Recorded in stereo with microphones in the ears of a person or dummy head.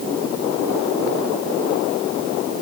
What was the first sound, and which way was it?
Only background noise.